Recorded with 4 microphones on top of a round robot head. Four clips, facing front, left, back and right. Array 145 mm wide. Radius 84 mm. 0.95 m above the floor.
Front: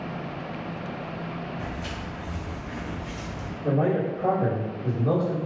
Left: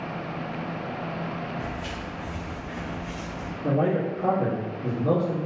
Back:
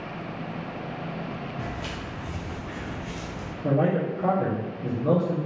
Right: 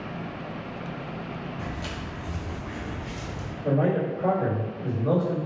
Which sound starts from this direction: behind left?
A man speaking, at 3.6 s.